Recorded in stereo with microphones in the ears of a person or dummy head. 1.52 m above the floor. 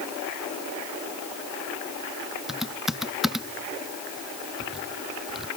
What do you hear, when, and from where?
2.5 s typing on a keyboard: centre (ahead or behind)